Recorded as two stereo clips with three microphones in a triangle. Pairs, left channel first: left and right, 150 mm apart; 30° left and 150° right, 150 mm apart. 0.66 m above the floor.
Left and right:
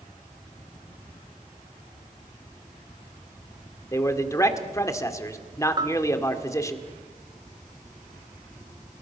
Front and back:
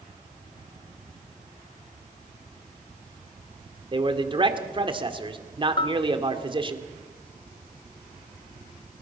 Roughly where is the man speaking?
Behind.